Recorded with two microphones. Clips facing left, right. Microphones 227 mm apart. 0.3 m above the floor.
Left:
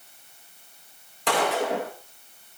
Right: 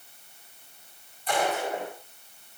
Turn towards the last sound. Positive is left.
turn(degrees=80)